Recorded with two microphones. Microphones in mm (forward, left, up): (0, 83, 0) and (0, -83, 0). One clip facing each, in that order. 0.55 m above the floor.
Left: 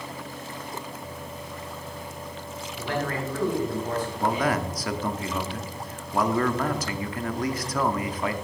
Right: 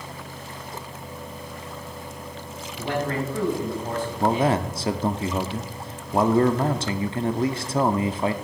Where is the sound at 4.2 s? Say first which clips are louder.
Right 5 dB; 25° right (ahead or behind), 0.6 m.